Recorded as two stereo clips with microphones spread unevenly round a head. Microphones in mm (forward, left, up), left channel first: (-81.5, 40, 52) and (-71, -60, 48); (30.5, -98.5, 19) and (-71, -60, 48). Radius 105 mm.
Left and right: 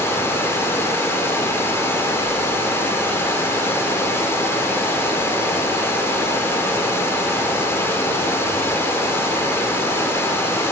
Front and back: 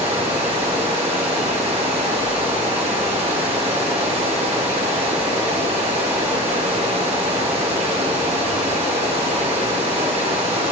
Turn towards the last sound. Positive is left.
turn(degrees=155)